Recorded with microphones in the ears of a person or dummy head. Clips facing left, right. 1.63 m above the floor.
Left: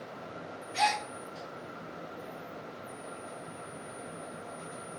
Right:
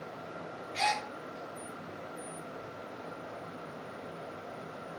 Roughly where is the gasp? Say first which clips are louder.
Left 3 dB; left.